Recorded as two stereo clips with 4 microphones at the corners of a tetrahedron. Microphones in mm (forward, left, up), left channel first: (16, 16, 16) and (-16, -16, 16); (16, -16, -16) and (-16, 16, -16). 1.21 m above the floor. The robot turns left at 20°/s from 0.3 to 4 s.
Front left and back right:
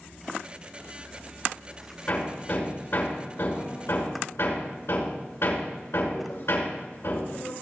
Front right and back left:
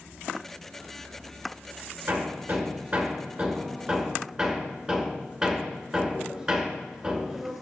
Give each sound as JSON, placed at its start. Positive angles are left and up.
{"t": 2.1, "sound": "hammering", "azimuth_deg": 95, "distance_m": 6.0}